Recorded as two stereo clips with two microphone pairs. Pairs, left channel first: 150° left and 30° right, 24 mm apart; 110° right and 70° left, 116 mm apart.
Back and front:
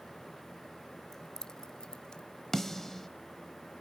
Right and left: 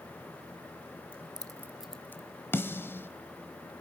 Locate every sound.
1.1 s keys jangling: 80° left, 1.1 m; by 2.2 s 170° right, 1.1 m
2.5 s a snare drum: 155° right, 1.3 m